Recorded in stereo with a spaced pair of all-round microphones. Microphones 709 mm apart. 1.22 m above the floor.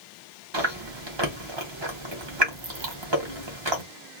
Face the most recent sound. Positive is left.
turn(degrees=-40)  # may be behind; listen again after turning